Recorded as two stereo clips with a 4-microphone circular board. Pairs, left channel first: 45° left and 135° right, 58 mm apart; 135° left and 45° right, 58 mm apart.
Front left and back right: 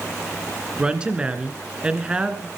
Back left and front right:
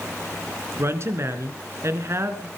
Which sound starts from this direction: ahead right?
A woman speaking, at 0.8 s.